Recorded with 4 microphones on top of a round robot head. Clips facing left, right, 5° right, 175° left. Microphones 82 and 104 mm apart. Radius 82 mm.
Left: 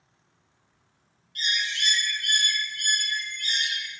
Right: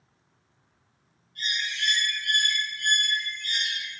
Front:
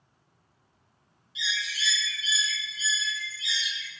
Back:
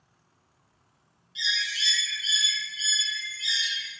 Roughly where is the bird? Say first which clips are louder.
Left 2 dB, back 1 dB; left.